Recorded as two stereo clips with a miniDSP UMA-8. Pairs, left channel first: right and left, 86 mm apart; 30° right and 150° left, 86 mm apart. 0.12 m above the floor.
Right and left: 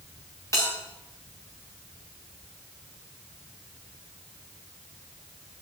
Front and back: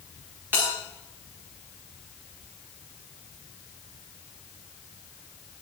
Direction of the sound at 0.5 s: 145° right.